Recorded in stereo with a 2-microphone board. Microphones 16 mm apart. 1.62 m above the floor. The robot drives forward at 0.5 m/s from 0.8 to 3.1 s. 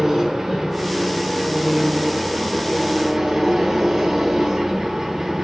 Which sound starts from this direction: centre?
An engine running, at 0.0 s.